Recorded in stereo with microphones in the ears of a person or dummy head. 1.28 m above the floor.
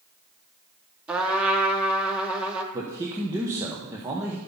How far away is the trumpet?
About 1.0 m.